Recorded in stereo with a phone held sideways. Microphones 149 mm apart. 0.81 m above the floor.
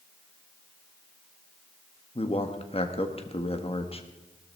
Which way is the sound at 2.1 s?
45° left (ahead or behind).